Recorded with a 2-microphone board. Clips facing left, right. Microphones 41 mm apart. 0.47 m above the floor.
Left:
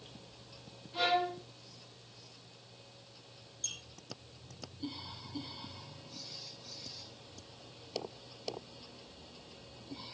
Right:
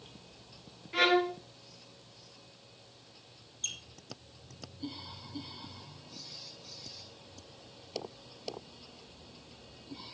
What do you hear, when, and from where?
0.9 s a violin: 85° right, 2.5 m
3.6 s a squeak: 45° right (ahead or behind), 2.5 m